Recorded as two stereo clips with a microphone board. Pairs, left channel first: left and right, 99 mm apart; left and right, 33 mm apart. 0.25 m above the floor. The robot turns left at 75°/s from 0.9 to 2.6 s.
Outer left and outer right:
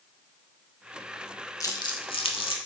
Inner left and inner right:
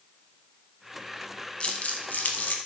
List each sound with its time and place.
1.6 s crumpling: 35° left (ahead or behind), 0.6 m; by 2.6 s 60° left (ahead or behind), 0.6 m